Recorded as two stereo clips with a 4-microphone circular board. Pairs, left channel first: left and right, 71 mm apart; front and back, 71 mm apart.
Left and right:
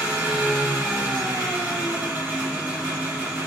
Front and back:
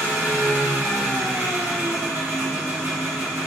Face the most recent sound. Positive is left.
turn(degrees=-145)